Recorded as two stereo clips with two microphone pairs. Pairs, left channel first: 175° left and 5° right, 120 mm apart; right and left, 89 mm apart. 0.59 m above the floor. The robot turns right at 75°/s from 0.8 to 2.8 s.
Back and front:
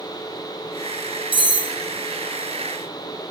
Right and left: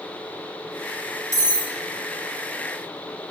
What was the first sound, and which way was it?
Cutlery clinking, 35° left.